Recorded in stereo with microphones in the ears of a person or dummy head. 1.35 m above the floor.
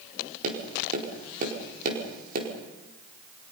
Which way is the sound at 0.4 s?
50° right (ahead or behind).